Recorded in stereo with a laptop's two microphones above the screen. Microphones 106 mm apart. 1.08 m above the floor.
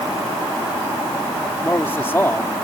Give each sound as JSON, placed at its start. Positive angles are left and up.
{"t": 1.6, "sound": "a man speaking", "side_deg": 20}